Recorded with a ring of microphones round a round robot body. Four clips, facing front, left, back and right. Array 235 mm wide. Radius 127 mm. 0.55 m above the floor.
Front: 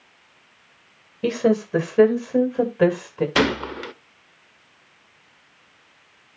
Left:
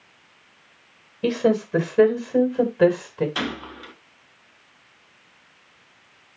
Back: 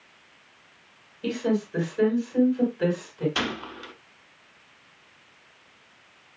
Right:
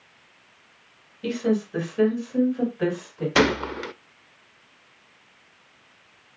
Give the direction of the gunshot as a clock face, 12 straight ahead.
2 o'clock.